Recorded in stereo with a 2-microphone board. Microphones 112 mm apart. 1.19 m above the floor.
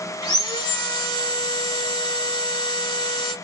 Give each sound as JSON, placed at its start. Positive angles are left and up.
{"t": 0.2, "sound": "sawing", "side_deg": 35, "distance_m": 1.6}